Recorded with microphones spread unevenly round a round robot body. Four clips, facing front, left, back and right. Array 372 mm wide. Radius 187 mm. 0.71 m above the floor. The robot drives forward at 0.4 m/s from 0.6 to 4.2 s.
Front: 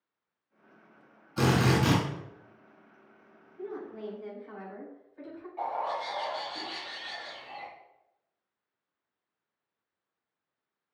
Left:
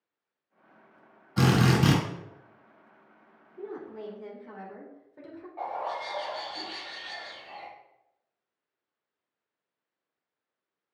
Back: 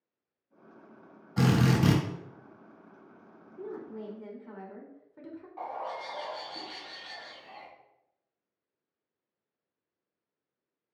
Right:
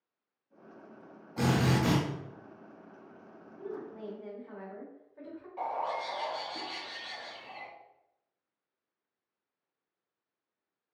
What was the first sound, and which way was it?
A drill, 120° left.